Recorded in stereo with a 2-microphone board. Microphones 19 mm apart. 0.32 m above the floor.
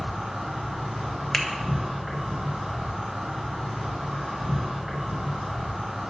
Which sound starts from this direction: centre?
A finger snap, at 1.3 s.